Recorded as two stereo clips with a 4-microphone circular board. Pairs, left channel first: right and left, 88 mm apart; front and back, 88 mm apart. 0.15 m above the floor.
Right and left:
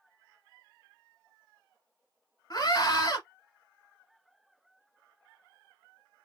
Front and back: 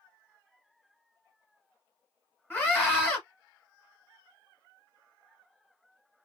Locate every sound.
2.5 s a scream: 65° right, 1.5 m